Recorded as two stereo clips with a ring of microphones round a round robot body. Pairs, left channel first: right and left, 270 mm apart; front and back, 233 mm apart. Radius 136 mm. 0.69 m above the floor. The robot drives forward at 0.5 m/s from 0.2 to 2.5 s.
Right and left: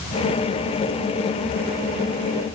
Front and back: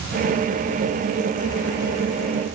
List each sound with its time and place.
Only background noise.